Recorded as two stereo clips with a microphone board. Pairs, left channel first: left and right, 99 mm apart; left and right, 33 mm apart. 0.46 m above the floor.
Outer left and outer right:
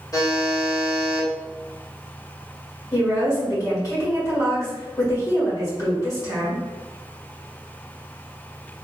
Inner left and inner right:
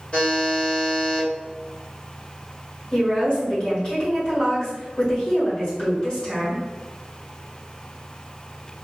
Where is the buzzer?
35° left (ahead or behind), 1.1 m.